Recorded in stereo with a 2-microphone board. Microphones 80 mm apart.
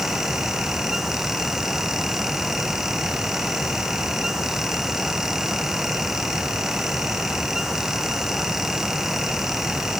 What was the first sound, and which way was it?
Only background noise.